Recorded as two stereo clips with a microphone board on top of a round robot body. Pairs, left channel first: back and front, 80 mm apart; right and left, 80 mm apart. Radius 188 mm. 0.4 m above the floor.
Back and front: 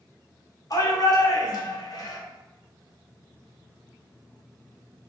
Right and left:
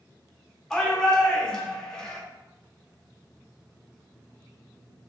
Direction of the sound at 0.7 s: 170° right.